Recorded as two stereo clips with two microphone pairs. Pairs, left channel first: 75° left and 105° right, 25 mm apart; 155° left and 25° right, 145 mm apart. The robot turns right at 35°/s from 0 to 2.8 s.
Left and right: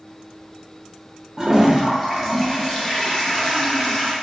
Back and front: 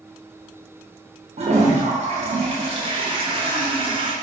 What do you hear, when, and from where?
1.4 s a toilet flushing: 40° right, 0.5 m; by 4.1 s 10° left, 0.5 m